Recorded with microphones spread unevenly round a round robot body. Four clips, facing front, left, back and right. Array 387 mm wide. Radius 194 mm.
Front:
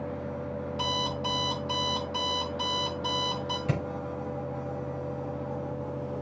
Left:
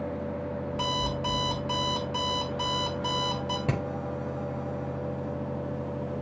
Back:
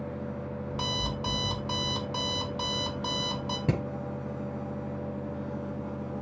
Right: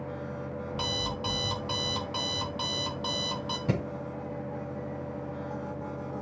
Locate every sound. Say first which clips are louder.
0.7 s an alarm clock: left 4 dB, front 3 dB; 170° right, 1.7 m
3.7 s hammering: right 2 dB, back 3 dB; 165° left, 6.5 m